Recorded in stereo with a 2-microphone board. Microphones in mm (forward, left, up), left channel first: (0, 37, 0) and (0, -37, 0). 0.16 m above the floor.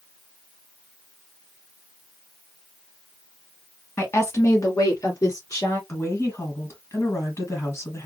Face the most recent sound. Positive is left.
turn(degrees=40)  # may be behind; listen again after turning